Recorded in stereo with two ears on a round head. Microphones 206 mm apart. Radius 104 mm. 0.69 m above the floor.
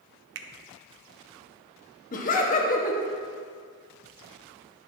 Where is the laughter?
35° left (ahead or behind), 1.2 m.